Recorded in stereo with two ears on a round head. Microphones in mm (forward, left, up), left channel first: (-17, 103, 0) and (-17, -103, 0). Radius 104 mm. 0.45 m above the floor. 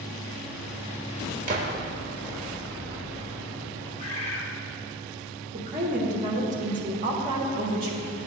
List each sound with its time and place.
1.5 s a gunshot: 35° right (ahead or behind), 0.9 m
4.0 s a bird: 35° left (ahead or behind), 2 m
5.5 s a woman speaking: 35° right (ahead or behind), 1.5 m